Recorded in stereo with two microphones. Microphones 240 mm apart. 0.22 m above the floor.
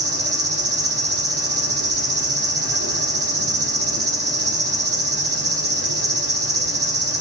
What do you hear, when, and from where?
0.0 s an insect: 75° right (ahead or behind), 1.4 m